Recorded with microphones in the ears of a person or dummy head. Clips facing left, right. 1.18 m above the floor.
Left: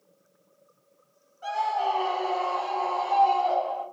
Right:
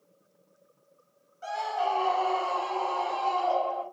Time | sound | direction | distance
1.4 | a scream | 25° right (ahead or behind) | 5.5 m